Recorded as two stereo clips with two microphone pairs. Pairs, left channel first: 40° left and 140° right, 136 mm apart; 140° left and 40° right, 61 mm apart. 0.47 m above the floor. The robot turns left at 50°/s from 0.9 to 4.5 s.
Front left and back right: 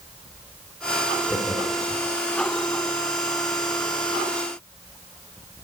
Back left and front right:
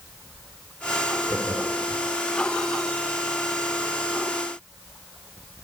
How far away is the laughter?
About 1.6 m.